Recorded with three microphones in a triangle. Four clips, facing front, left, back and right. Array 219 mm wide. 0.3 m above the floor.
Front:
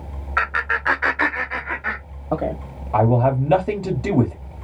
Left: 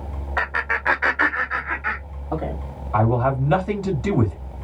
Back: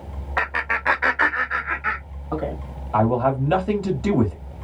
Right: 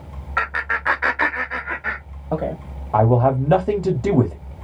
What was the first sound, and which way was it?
Laughter, 155° left.